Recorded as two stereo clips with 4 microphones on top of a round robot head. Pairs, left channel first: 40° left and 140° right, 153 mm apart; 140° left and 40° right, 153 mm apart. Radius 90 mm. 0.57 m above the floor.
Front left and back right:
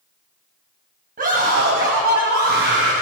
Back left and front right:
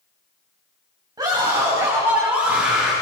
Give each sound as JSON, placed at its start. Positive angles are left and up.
{"t": 1.2, "sound": "a scream", "azimuth_deg": -105, "distance_m": 4.0}